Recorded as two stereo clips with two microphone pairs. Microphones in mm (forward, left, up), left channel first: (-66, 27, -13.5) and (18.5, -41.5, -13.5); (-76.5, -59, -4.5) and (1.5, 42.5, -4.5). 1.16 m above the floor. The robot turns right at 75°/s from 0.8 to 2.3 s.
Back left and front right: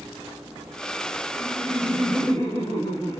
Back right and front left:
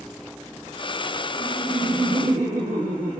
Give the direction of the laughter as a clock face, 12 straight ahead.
12 o'clock.